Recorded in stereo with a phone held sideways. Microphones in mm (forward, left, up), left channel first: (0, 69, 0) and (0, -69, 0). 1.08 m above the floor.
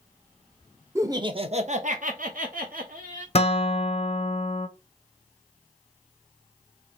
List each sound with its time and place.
0.9 s laughter: 20° right (ahead or behind), 0.8 m; by 3.2 s 85° right, 1.8 m
3.4 s a guitar: 45° left (ahead or behind), 0.7 m